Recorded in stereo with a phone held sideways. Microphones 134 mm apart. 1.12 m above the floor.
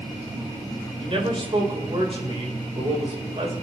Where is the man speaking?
40° right (ahead or behind), 4 m.